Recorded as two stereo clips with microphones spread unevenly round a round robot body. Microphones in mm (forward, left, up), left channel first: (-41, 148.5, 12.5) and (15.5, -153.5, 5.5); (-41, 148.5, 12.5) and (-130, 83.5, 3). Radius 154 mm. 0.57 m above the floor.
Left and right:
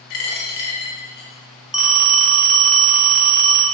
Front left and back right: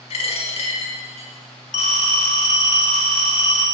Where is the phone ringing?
10° left, 1.1 m.